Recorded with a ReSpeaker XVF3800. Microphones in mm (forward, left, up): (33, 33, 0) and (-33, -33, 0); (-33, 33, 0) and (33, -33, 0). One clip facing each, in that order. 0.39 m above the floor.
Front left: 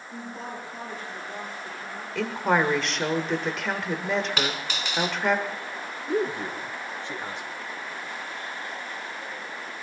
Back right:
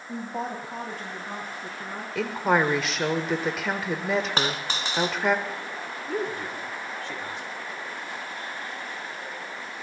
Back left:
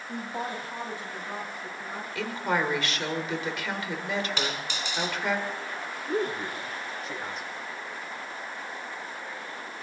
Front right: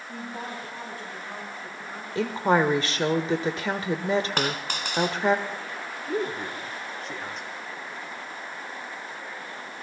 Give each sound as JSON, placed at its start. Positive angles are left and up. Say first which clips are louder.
{"t": 0.1, "sound": "a woman speaking", "louder": "back right 5 dB, back left 3 dB", "azimuth_deg": -165, "distance_m": 2.5}
{"t": 2.1, "sound": "a woman speaking", "louder": "even, front right 6 dB", "azimuth_deg": -50, "distance_m": 1.1}
{"t": 4.4, "sound": "a dropped coin", "louder": "back right 1 dB, front right 4 dB", "azimuth_deg": -80, "distance_m": 1.6}
{"t": 6.1, "sound": "a man speaking", "louder": "front left 4 dB, even", "azimuth_deg": 55, "distance_m": 1.3}